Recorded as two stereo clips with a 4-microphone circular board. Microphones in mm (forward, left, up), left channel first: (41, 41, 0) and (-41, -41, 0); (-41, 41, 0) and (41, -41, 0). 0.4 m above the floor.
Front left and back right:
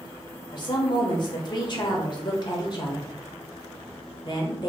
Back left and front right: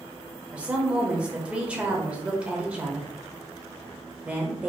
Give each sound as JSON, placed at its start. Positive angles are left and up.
{"t": 0.5, "sound": "a woman speaking", "azimuth_deg": 30, "distance_m": 0.9}